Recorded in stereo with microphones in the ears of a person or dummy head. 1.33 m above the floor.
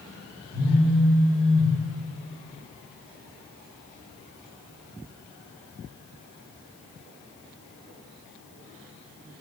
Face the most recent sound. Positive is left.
turn(degrees=55)  # may be behind; listen again after turning